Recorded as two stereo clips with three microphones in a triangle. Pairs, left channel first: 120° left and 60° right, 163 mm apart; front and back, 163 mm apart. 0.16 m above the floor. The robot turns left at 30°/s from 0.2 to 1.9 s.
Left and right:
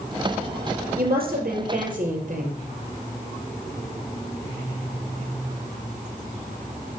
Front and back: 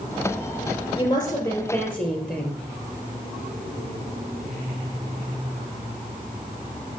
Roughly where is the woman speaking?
Ahead right.